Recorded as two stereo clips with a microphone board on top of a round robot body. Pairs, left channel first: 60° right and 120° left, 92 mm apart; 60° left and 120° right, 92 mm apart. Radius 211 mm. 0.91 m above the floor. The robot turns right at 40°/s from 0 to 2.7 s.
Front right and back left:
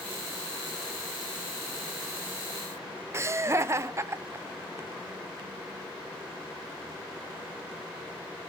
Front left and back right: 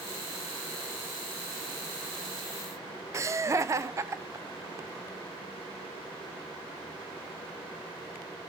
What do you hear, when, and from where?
3.1 s laughter: straight behind, 0.6 m